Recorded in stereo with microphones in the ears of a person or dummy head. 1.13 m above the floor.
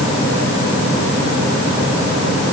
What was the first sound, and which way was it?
Only background noise.